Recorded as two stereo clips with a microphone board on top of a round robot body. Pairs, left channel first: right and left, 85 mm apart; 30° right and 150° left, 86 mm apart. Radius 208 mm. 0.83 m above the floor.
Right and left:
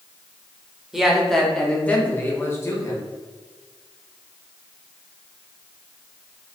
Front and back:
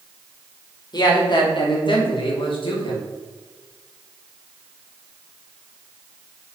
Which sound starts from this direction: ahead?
A man speaking, at 0.9 s.